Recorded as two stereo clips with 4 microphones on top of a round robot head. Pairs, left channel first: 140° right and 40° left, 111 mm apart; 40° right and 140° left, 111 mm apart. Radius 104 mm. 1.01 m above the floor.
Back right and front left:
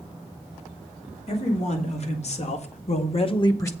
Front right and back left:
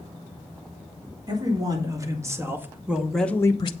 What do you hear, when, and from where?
1.3 s a man speaking: 165° right, 3.5 m; by 3.7 s 75° right, 1.0 m